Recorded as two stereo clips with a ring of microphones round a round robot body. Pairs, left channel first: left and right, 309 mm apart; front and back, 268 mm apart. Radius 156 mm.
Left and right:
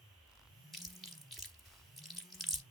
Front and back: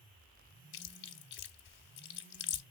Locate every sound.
0.7 s chewing: straight ahead, 0.9 m